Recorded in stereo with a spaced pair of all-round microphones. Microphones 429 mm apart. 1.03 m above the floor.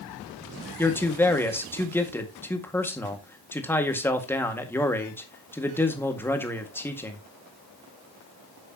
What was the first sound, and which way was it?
A man speaking, 5° left (ahead or behind).